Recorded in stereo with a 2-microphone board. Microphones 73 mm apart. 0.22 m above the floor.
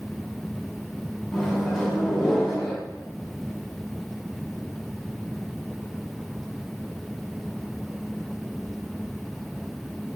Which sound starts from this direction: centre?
A microwave, at 1.3 s.